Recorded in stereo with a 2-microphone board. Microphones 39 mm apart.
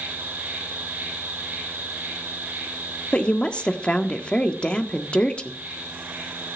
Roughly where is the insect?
Right.